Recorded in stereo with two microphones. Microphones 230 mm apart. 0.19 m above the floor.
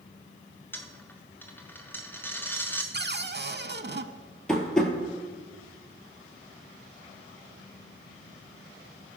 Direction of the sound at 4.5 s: Centre (ahead or behind).